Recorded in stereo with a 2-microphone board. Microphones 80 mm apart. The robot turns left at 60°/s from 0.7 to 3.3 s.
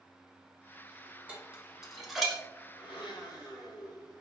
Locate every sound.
1.3 s dishes clattering: 15° right (ahead or behind), 1.0 m; by 2.4 s 5° left (ahead or behind), 1.0 m
2.8 s a blender: 95° left, 1.6 m; by 4.2 s 65° left, 1.6 m